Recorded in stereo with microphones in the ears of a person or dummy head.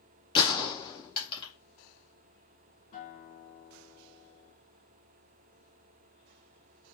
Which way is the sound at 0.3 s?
25° left (ahead or behind).